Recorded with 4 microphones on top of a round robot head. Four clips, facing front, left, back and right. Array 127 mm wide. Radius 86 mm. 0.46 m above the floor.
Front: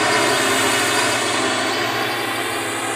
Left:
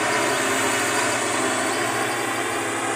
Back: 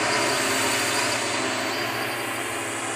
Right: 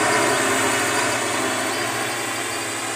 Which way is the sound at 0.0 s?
20° right.